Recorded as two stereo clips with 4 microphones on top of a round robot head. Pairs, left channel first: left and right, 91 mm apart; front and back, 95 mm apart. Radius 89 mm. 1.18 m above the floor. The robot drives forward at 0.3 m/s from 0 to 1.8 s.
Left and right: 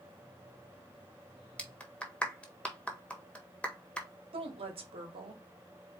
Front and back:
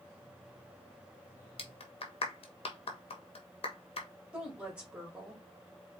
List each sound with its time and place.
1.6 s a clap: 10° left, 1.5 m
4.3 s a woman speaking: 100° right, 1.9 m